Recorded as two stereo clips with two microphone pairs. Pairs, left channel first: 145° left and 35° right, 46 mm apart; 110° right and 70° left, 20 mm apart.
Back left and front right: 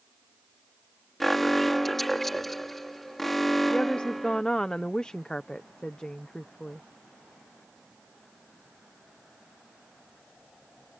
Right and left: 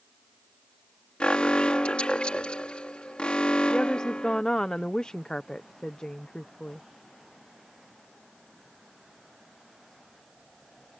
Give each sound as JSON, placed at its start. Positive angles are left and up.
{"t": 1.2, "sound": "an alarm", "azimuth_deg": -135}
{"t": 3.7, "sound": "a woman speaking", "azimuth_deg": -150}